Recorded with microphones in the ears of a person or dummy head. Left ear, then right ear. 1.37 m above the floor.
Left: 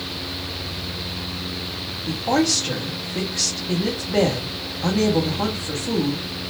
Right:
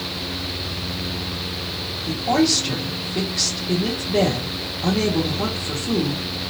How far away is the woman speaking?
About 1.1 m.